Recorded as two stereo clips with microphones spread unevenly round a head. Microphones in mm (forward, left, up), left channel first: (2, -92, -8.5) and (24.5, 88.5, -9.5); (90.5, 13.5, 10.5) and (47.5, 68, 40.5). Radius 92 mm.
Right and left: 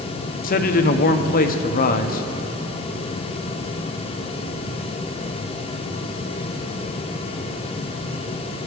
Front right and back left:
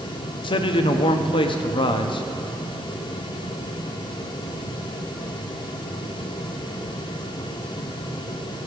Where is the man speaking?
55° right, 0.7 m.